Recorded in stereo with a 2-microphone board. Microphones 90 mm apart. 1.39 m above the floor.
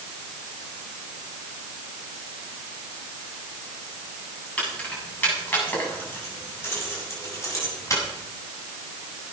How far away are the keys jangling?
About 7.5 m.